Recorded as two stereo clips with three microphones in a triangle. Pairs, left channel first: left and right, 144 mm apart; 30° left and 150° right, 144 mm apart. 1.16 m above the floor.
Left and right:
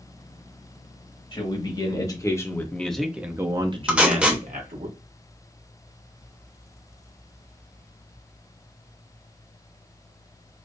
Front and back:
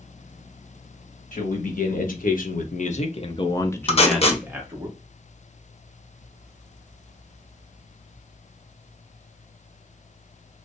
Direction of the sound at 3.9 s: 10° right.